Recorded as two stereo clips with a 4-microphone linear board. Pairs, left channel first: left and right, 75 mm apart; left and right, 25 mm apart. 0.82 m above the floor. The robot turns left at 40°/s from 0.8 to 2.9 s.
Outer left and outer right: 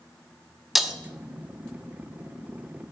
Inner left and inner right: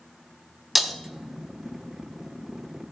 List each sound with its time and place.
0.8 s breaking glass: centre (ahead or behind), 0.6 m; by 0.9 s 10° right (ahead or behind), 0.6 m